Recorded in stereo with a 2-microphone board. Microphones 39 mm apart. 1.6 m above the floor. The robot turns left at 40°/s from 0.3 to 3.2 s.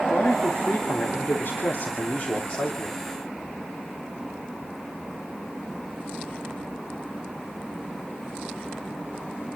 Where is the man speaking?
135° left, 3 m; by 3.0 s 25° left, 3 m.